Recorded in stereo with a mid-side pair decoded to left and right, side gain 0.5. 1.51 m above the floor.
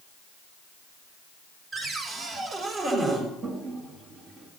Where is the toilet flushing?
55° right, 4.5 m.